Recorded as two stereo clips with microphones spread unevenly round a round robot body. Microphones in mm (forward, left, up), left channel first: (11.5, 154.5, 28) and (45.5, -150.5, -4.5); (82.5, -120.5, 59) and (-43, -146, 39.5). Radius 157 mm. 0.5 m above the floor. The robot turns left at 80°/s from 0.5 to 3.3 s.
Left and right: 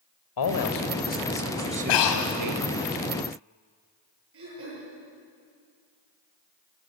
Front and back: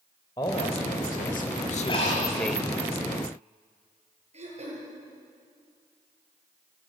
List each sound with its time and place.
0.4 s a man speaking: 80° left, 2 m; by 2.9 s 110° right, 2 m
1.9 s breathing: 80° left, 2 m; by 2.4 s 45° left, 2 m
4.3 s throat clearing: 135° right, 9 m